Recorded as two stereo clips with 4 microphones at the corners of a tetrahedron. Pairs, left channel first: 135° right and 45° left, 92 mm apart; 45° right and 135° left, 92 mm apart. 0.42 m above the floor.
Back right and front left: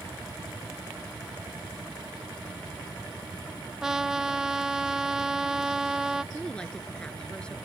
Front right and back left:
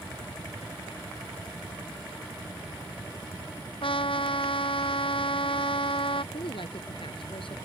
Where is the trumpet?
40° right.